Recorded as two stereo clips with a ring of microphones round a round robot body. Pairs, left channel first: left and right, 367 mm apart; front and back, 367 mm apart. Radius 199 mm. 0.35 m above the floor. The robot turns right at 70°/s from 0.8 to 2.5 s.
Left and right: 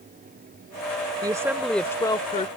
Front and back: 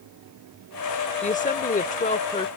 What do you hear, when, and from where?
1.2 s a woman speaking: 35° right; by 2.5 s 55° left